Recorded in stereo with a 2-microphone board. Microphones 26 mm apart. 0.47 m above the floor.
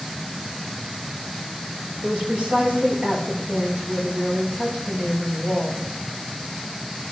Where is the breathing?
I don't hear breathing.